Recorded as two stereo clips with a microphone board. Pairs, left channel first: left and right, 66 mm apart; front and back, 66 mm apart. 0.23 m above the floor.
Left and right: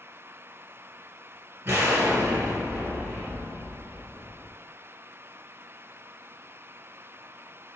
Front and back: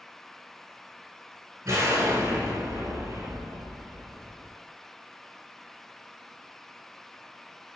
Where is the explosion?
140° right, 1.5 m.